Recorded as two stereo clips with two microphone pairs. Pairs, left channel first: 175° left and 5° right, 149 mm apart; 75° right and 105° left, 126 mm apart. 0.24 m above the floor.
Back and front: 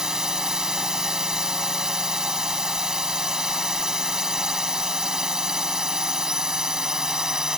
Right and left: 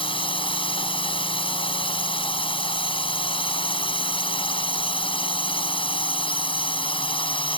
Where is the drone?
85° right.